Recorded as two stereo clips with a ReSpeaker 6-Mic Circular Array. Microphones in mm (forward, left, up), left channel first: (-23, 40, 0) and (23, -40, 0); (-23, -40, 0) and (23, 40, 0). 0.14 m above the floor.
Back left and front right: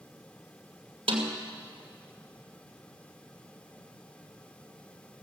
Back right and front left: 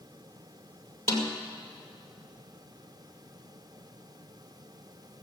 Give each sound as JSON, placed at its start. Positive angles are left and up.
{"t": 1.1, "sound": "a snare drum", "azimuth_deg": -65, "distance_m": 2.0}